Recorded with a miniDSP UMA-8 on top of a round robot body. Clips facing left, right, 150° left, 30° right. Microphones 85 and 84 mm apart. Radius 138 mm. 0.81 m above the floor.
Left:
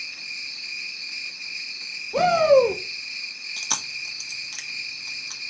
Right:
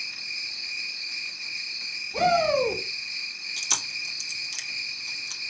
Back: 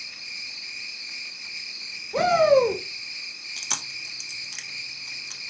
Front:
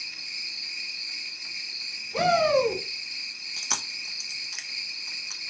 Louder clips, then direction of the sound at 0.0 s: Even, back 1 dB; 170° right.